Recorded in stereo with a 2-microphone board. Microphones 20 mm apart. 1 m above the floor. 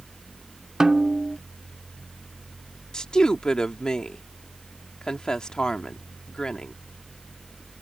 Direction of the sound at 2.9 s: 40° left (ahead or behind).